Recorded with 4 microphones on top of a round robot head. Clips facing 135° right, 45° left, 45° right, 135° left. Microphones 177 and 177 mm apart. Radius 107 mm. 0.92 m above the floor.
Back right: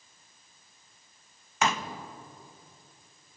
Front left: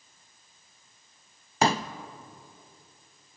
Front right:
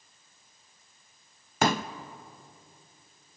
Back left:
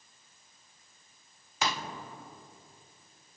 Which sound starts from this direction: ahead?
A pop, at 1.6 s.